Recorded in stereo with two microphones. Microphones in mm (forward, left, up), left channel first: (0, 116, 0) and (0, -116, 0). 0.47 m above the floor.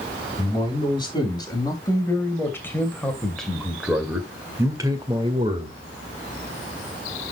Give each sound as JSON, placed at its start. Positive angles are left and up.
{"t": 0.4, "sound": "a man speaking", "side_deg": 20, "distance_m": 3.5}